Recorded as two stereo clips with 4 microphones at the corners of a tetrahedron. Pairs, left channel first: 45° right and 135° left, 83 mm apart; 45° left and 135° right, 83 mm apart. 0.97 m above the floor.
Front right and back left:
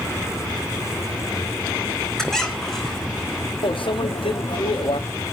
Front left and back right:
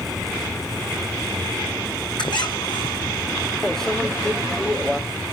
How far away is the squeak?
About 2.5 m.